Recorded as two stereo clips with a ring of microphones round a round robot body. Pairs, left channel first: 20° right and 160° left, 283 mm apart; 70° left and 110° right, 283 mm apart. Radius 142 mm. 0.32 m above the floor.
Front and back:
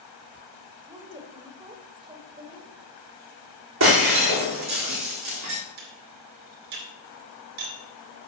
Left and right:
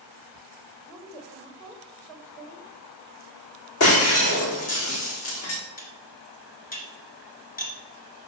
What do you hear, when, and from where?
0.9 s a woman speaking: 130° left, 1.4 m
3.8 s breaking glass: 110° left, 3.5 m
5.8 s cutlery clinking: 130° left, 3 m